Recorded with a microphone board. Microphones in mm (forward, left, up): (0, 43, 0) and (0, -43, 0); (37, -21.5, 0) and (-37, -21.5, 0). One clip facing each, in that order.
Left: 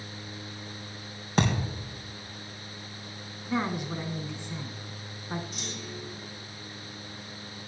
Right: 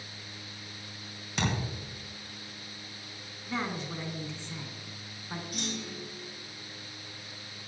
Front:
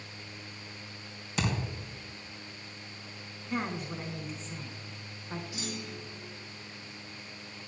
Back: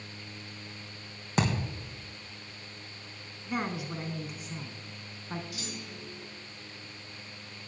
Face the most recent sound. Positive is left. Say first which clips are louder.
# right 2 dB, front 2 dB
turn(degrees=-65)